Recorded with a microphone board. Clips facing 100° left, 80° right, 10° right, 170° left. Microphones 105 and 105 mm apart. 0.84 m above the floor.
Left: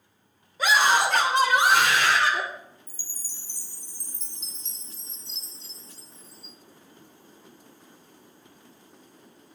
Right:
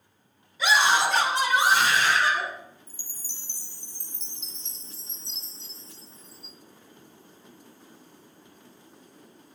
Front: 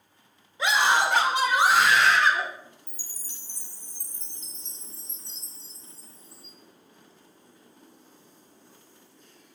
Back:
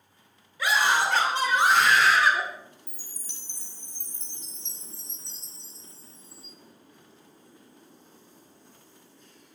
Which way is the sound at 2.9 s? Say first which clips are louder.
Even, back 1 dB; 150° left.